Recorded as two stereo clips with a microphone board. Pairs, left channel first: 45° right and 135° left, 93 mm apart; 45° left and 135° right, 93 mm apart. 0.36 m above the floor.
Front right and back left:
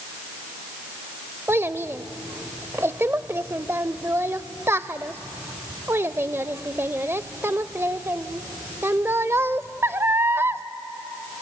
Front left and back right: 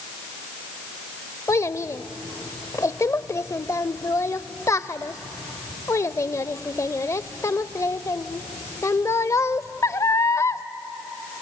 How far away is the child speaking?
About 0.6 m.